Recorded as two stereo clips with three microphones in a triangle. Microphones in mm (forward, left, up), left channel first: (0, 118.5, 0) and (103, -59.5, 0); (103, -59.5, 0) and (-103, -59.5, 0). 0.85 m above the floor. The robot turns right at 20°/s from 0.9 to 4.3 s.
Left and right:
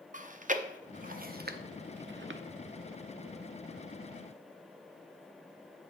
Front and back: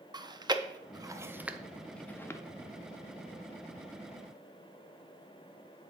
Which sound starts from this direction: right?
Chewing, at 0.1 s.